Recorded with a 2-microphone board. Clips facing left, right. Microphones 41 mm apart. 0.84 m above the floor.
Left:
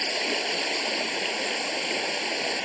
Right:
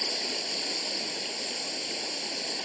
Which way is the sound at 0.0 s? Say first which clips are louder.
Left 7 dB; 45° left (ahead or behind).